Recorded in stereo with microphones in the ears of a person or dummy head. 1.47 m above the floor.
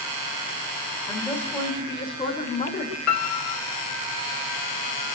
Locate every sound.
1.1 s a woman speaking: 5° left (ahead or behind), 6.5 m; by 3.0 s 35° left (ahead or behind), 6.5 m
3.1 s a piano: 85° left, 2.5 m